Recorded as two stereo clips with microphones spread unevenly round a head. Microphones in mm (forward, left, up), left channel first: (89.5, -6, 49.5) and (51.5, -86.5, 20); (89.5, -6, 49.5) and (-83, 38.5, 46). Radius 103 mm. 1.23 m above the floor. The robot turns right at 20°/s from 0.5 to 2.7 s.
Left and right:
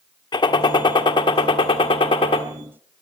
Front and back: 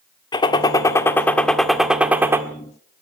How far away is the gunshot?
About 1.5 m.